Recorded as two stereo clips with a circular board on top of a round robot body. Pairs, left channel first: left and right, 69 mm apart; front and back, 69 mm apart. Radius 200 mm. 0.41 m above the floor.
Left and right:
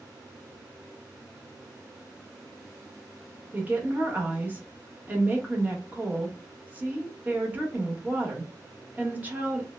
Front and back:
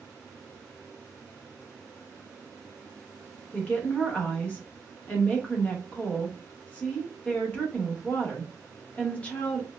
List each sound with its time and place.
3.5 s a woman speaking: 50° right, 1.3 m